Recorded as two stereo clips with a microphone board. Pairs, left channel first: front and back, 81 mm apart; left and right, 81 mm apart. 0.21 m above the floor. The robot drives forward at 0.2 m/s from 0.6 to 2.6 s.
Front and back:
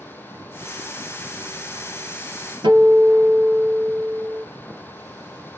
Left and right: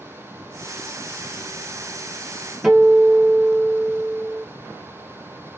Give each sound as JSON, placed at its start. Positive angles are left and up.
{"t": 2.6, "sound": "a guitar", "azimuth_deg": -175, "distance_m": 1.1}